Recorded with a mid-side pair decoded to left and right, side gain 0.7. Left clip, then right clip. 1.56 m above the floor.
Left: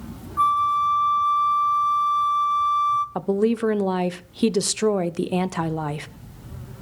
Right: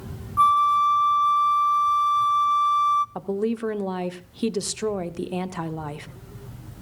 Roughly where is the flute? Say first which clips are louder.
Right 2 dB; ahead.